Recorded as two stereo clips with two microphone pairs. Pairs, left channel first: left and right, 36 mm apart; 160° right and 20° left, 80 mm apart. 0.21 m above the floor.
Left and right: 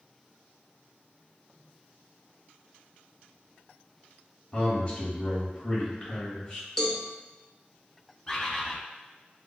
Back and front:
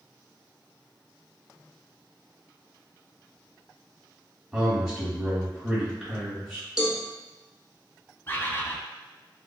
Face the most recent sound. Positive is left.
turn(degrees=155)